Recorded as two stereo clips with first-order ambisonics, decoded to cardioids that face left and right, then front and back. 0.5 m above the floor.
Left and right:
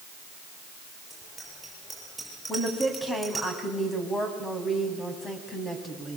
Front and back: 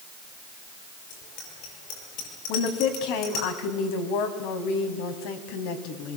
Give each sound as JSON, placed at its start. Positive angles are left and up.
{"t": 1.1, "sound": "a bicycle bell", "azimuth_deg": 5, "distance_m": 9.5}
{"t": 2.5, "sound": "a woman speaking", "azimuth_deg": 10, "distance_m": 3.5}